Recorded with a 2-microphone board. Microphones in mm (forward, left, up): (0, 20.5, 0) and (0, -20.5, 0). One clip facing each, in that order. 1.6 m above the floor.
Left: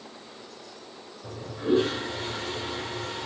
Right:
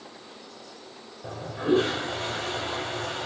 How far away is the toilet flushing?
About 1.8 m.